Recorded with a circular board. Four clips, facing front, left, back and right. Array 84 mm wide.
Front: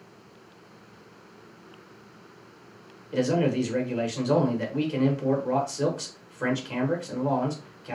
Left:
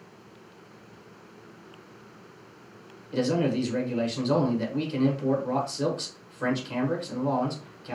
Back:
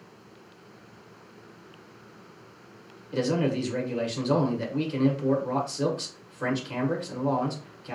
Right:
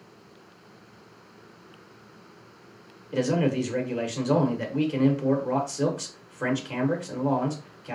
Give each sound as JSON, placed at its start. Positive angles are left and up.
{"t": 3.1, "sound": "a man speaking", "azimuth_deg": -55, "distance_m": 1.1}